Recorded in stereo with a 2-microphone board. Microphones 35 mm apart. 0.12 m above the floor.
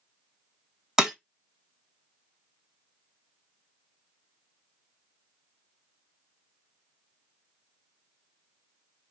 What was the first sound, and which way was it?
Breaking glass, 15° right (ahead or behind).